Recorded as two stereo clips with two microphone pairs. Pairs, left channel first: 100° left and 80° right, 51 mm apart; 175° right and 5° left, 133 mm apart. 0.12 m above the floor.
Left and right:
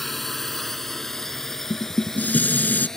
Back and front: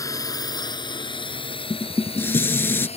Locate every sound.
0.0 s a drone: straight behind; by 3.0 s 175° left
1.7 s dishes clattering: 120° left